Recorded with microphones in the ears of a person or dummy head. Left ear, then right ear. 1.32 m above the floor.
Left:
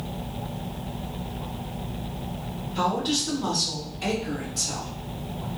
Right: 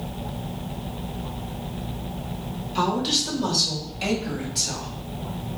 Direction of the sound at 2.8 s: 60° right (ahead or behind).